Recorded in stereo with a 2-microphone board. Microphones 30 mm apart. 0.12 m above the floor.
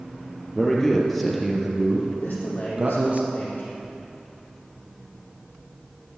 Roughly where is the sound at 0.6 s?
Centre.